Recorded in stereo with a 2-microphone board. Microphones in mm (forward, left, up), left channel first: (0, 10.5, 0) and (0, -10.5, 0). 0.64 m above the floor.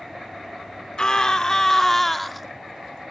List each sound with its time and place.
1.0 s a scream: 35° left (ahead or behind), 2 m; by 2.5 s 5° right (ahead or behind), 1.4 m